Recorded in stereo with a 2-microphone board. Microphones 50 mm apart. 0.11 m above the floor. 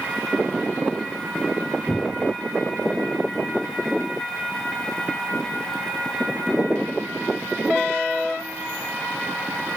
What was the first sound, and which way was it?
A cupboard door, 5° left (ahead or behind).